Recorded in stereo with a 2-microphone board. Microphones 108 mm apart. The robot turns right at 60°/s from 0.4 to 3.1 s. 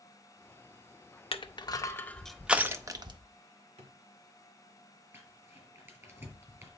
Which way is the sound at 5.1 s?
25° right (ahead or behind).